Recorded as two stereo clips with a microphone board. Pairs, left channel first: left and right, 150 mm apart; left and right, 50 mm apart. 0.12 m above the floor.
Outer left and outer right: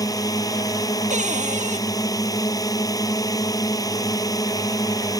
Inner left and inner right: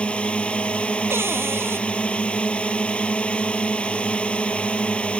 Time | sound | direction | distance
0.0 | a drone | 25° left (ahead or behind) | ?
1.1 | a cupboard door | 55° right (ahead or behind) | ?